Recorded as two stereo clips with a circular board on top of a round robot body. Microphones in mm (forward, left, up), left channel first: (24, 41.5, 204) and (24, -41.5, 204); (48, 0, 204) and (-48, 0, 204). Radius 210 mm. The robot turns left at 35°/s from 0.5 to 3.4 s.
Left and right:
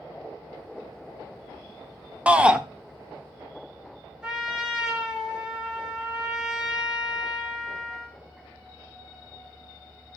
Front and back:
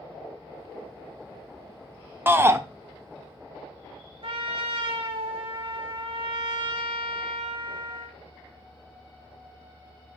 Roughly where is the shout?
Behind right.